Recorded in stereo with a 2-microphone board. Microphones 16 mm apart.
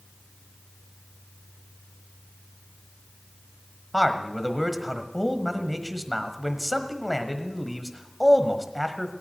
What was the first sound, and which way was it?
A man speaking, 5° right (ahead or behind).